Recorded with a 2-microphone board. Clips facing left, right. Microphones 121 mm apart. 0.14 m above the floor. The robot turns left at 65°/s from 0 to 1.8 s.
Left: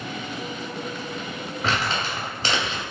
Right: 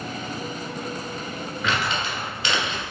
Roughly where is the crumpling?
Left.